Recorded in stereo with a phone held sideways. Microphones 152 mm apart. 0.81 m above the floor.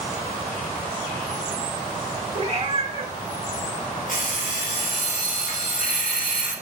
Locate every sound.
2.4 s a cat meowing: 40° right (ahead or behind), 0.7 m
4.1 s an alarm clock: 70° left (ahead or behind), 1.9 m